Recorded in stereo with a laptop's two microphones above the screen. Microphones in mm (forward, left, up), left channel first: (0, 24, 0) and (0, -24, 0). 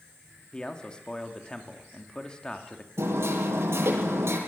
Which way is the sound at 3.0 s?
60° right (ahead or behind).